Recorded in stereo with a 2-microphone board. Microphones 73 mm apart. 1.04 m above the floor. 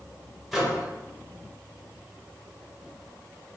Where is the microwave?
5° right (ahead or behind), 0.6 m.